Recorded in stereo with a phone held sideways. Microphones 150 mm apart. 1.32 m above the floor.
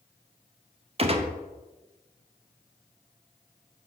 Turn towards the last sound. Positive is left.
turn(degrees=-40)  # may be behind; listen again after turning